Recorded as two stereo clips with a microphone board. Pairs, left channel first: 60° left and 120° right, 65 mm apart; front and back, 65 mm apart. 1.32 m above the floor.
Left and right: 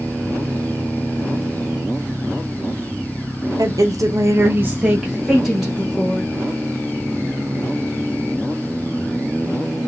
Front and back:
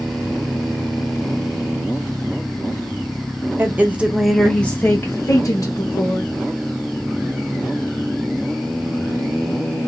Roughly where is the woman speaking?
Behind right.